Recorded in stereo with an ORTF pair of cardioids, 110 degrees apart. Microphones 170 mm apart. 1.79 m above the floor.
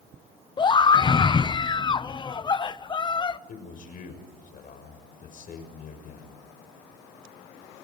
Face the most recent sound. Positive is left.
turn(degrees=55)